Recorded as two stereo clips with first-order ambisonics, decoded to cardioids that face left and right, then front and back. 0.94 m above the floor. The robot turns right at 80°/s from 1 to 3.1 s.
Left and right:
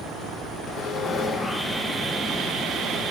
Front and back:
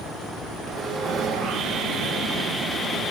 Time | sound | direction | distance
0.7 | sawing | 130° left | 1.1 m